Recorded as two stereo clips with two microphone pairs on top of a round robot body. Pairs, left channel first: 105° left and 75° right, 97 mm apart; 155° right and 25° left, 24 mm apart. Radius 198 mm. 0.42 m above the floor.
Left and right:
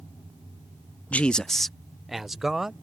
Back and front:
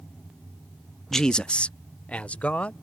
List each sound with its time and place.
1.1 s a man speaking: 150° left; by 2.7 s 160° right